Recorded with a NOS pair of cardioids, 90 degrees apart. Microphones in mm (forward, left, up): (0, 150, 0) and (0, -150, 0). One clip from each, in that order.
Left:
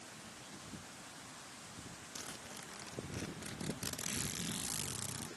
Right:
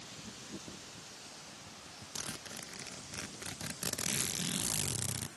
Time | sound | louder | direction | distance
2.1 | a zipper | right 6 dB | 35° right | ?